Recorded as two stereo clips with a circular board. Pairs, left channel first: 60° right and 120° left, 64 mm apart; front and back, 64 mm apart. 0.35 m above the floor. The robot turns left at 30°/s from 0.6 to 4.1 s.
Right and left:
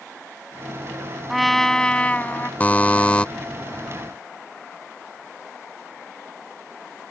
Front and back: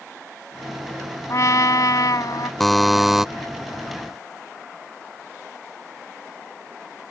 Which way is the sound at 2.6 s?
85° right.